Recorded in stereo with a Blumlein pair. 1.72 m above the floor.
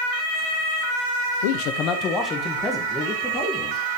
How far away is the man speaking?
About 1.0 m.